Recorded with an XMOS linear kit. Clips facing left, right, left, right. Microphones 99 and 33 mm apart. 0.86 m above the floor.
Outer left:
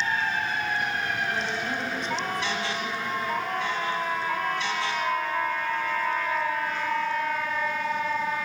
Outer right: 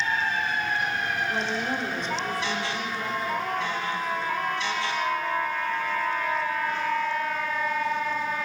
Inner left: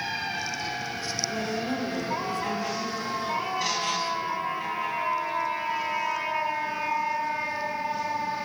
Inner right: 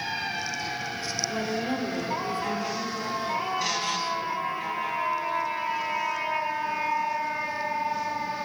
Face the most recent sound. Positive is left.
turn(degrees=-40)  # may be behind; listen again after turning